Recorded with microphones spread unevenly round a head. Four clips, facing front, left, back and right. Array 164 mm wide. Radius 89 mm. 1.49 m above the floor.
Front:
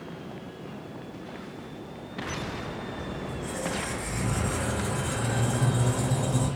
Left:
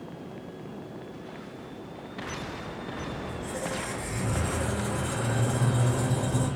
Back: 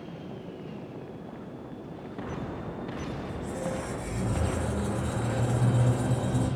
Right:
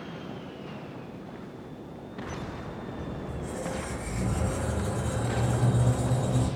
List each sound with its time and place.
3.2 s a squeak: 105° left, 1.7 m